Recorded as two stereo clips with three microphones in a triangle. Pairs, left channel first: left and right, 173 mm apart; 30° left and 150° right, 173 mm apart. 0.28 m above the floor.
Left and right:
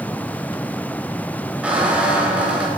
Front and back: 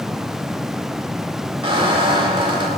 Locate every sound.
1.6 s a squeak: 165° right, 0.9 m